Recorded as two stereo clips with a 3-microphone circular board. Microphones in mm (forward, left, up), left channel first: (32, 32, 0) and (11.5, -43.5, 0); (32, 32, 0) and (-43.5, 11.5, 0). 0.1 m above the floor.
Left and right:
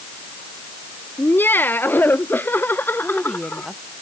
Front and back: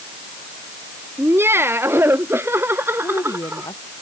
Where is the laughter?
140° left; by 3.7 s 135° left.